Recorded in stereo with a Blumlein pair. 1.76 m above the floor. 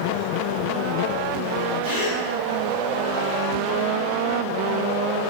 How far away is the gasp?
About 1.4 m.